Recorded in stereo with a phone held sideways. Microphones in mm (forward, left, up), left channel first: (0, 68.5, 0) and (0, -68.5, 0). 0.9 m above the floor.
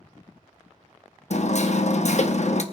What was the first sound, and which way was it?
Hammering, 55° left (ahead or behind).